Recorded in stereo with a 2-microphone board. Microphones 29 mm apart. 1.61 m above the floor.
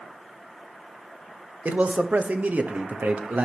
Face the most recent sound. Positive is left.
turn(degrees=-80)